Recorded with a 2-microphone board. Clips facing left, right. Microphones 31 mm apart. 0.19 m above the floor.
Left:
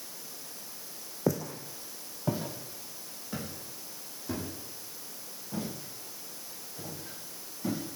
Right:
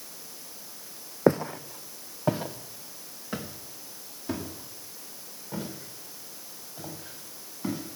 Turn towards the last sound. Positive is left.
turn(degrees=-30)  # may be behind; listen again after turning